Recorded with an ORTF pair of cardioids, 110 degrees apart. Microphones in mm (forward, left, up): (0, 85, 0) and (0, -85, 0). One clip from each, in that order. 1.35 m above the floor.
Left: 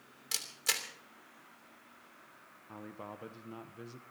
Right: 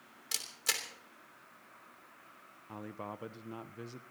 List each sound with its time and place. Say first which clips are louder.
0.3 s a camera shutter: left 1 dB; straight ahead, 2.5 m
2.7 s a man speaking: right 3 dB; 15° right, 0.7 m